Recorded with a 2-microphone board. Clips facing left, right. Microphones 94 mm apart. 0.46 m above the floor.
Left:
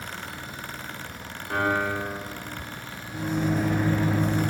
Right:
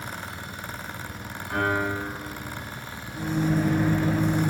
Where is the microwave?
60° left (ahead or behind), 1.5 m.